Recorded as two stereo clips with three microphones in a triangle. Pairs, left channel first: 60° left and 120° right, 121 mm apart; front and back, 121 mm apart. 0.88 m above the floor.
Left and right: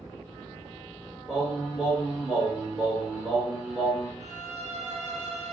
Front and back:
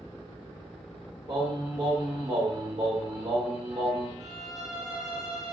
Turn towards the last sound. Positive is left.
turn(degrees=-130)